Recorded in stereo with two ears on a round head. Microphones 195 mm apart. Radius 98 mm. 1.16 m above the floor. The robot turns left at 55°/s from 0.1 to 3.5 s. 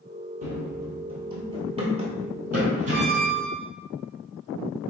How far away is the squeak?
About 1.5 m.